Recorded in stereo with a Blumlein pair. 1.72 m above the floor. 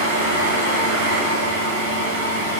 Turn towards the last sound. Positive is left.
turn(degrees=-50)